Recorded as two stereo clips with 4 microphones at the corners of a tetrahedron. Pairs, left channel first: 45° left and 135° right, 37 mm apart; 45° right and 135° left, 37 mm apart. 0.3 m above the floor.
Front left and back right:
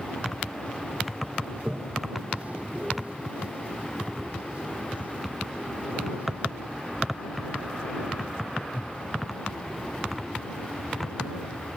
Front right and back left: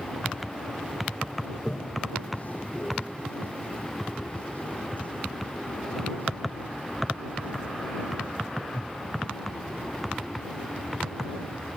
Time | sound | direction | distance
1.5 | a toilet flushing | 90° right | ?